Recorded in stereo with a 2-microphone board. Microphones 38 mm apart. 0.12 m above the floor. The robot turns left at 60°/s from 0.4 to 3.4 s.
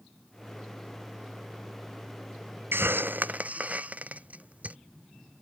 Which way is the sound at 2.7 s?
75° right (ahead or behind).